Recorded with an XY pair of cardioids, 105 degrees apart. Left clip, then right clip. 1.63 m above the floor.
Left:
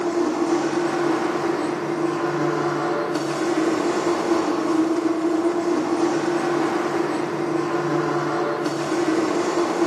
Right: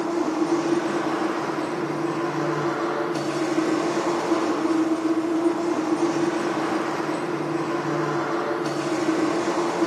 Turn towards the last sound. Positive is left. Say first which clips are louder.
# left 2 dB
turn(degrees=55)